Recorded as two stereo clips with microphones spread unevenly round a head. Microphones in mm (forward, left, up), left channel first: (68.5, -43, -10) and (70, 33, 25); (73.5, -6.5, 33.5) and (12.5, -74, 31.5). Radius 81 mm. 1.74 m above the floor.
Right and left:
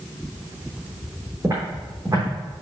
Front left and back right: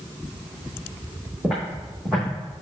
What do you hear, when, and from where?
1.4 s footsteps: 140° left, 3.5 m